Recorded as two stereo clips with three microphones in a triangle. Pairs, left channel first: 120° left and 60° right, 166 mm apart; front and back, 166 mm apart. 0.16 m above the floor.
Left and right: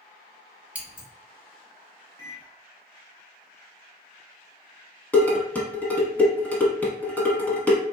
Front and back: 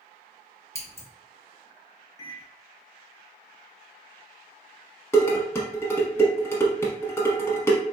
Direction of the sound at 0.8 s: Straight ahead.